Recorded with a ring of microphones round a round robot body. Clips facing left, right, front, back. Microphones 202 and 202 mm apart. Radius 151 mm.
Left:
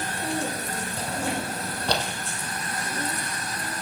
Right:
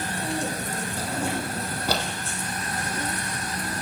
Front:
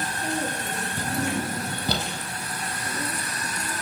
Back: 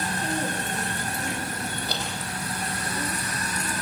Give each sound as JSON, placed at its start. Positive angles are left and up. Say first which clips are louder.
{"t": 1.0, "sound": "a drawer", "louder": "right 1 dB, front 5 dB", "azimuth_deg": -5, "distance_m": 4.0}